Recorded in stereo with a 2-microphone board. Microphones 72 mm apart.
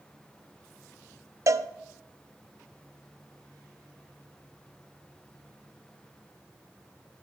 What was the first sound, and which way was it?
A cowbell, 50° right (ahead or behind).